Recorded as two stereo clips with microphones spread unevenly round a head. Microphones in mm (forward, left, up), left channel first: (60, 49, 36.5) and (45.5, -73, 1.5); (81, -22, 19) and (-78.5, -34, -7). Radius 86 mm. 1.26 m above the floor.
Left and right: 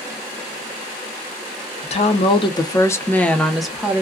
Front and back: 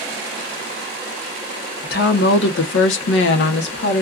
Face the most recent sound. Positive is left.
turn(degrees=-20)